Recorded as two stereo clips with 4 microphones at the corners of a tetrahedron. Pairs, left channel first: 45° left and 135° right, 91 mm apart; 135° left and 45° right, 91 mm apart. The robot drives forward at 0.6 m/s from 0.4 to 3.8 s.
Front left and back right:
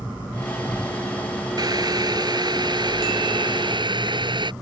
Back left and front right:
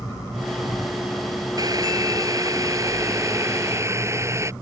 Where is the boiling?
95° right; by 4.5 s 105° right.